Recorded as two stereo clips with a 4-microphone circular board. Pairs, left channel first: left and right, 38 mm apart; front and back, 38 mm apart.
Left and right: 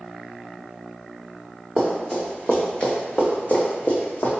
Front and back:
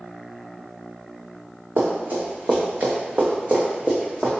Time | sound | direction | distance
1.8 | running footsteps | 175° left | 1.3 m